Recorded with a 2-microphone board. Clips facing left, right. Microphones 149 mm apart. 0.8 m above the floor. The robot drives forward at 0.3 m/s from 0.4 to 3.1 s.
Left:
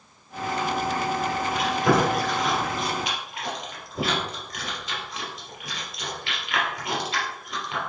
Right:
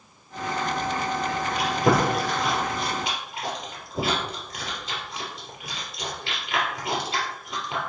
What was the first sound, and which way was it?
Chewing, 30° right (ahead or behind).